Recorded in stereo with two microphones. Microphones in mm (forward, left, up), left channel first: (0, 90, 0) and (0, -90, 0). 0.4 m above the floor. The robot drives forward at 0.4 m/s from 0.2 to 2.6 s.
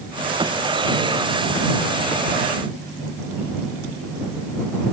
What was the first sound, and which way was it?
Only background noise.